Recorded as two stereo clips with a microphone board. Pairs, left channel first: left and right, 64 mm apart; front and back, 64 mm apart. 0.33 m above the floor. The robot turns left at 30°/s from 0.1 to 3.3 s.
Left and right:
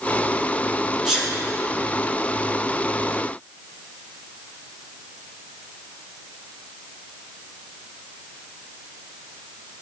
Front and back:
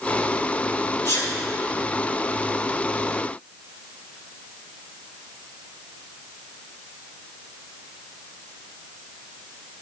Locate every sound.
1.1 s a sneeze: 5° right, 1.7 m; by 1.3 s 15° right, 1.7 m